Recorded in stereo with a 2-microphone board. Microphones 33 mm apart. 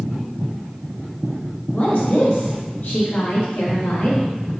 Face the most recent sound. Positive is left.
turn(degrees=70)  # may be behind; listen again after turning